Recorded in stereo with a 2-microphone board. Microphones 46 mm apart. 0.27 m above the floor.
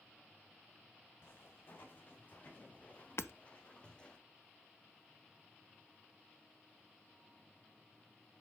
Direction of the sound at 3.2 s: 70° left (ahead or behind).